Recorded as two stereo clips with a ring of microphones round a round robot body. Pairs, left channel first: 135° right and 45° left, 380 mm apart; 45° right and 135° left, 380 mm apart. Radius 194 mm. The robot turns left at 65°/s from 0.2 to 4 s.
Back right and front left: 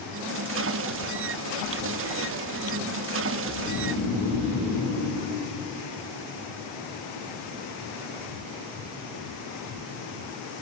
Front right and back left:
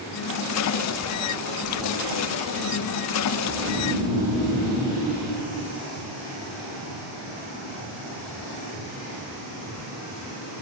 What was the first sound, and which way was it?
Snoring, 170° right.